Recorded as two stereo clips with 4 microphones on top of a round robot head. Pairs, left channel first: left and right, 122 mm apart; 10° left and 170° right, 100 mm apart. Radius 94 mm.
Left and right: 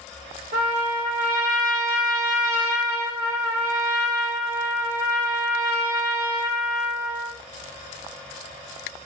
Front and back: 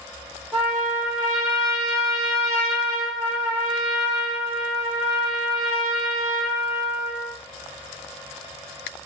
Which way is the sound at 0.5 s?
75° right.